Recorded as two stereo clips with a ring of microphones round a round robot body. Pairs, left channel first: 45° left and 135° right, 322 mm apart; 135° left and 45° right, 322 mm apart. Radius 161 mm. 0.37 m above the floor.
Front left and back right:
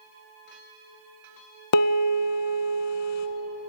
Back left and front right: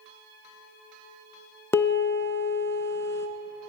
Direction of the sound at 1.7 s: 50° left.